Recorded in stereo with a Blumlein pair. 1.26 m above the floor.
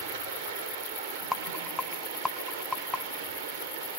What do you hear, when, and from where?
0.0 s running water: 45° right, 3.5 m
1.3 s a rattle: 5° left, 1.0 m